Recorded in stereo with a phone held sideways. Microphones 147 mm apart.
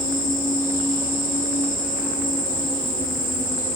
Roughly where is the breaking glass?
I don't hear breaking glass.